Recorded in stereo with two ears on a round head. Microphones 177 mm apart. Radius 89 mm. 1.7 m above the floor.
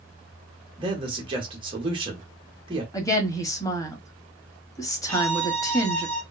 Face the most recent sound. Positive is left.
turn(degrees=5)  # may be behind; listen again after turning